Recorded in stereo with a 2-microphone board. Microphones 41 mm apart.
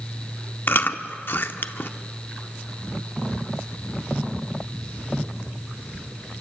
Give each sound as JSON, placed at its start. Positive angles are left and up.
{"t": 0.7, "sound": "chewing", "side_deg": 55, "distance_m": 1.0}